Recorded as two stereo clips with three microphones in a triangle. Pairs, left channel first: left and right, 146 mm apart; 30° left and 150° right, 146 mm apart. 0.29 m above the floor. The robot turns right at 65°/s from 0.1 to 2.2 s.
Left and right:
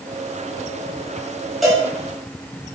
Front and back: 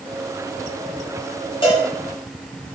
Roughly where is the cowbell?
Ahead.